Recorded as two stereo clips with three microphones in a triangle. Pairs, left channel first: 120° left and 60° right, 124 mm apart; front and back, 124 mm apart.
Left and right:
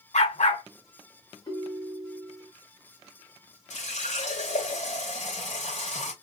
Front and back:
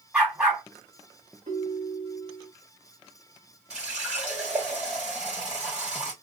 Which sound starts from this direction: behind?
A ringtone, at 1.5 s.